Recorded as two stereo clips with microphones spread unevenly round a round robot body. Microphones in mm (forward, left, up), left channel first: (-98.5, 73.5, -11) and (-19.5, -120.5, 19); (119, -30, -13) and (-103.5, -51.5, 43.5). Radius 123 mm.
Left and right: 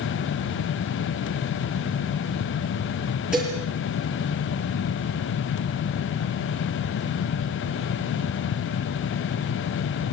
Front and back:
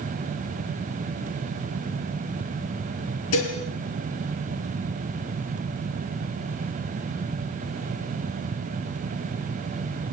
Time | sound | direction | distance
3.3 | dishes clattering | 20° left | 5 m